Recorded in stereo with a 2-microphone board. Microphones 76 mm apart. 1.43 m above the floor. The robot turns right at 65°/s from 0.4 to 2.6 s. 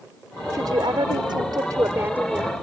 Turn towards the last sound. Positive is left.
turn(degrees=5)